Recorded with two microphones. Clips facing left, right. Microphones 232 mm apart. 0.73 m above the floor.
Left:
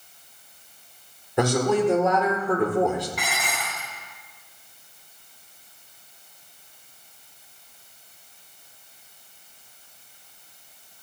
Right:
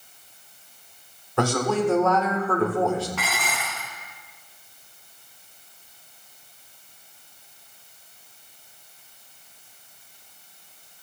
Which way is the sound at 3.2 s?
15° left (ahead or behind).